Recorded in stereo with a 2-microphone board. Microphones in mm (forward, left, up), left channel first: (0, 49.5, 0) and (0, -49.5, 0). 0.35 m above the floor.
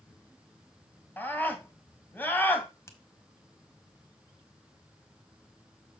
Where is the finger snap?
30° left (ahead or behind), 1.6 m.